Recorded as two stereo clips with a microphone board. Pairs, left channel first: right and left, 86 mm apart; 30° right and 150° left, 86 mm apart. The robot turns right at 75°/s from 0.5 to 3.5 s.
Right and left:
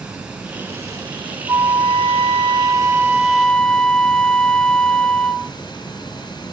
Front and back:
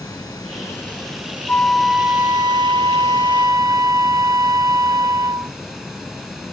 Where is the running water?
10° left, 3.5 m; by 6.5 s 125° right, 3.5 m.